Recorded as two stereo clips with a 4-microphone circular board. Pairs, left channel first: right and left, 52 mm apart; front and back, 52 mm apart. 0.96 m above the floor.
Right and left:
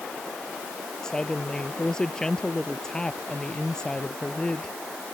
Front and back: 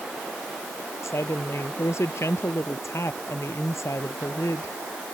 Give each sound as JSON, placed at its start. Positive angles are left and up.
{"t": 1.0, "sound": "a woman speaking", "azimuth_deg": -15}